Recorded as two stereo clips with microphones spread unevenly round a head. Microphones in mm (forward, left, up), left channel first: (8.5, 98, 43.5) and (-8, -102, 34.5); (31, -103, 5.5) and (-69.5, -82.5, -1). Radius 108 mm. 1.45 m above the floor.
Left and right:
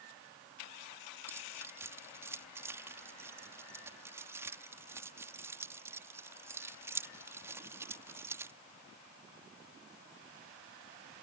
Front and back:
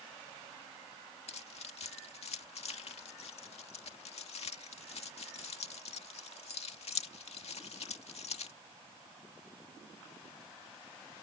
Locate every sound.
1.3 s keys jangling: 15° right